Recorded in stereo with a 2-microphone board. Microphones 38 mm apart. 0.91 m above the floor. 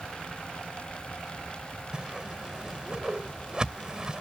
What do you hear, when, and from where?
1.9 s a whoosh: 25° right (ahead or behind)